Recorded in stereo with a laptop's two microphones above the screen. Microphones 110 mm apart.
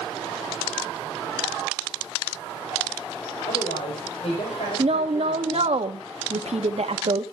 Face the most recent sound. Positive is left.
turn(degrees=-70)  # may be behind; listen again after turning